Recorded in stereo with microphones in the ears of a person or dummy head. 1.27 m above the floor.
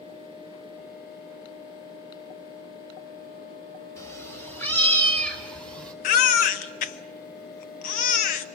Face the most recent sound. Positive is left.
turn(degrees=50)  # may be behind; listen again after turning